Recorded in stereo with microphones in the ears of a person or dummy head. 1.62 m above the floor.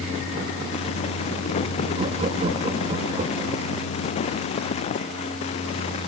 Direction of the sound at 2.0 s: 35° right (ahead or behind).